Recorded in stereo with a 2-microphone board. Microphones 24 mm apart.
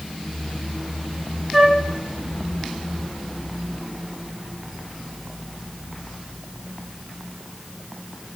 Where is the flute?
5° right (ahead or behind), 0.7 m.